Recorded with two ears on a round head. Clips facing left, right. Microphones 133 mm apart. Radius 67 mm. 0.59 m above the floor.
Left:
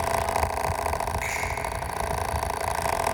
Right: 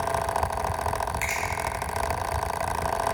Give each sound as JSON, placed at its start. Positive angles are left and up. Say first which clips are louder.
{"t": 1.2, "sound": "a finger snap", "louder": "even", "side_deg": -60, "distance_m": 3.0}